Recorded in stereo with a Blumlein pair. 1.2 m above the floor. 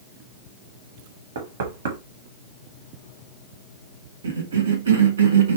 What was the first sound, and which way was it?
Knocking, 60° right.